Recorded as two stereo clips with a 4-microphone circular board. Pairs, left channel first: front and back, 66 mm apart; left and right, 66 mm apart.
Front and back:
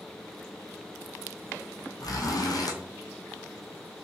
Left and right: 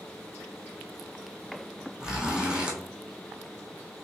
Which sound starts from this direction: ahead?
A zipper, at 2.0 s.